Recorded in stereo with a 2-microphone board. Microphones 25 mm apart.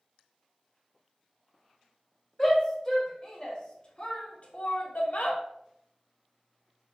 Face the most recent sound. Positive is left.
turn(degrees=65)  # may be behind; listen again after turning